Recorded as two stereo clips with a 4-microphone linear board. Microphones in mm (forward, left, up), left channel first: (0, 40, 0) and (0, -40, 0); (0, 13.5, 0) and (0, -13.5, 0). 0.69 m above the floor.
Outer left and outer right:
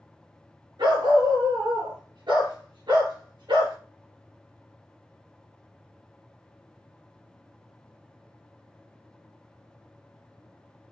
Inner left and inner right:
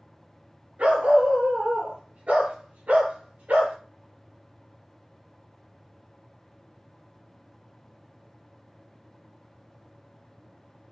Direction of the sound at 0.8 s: 70° right (ahead or behind).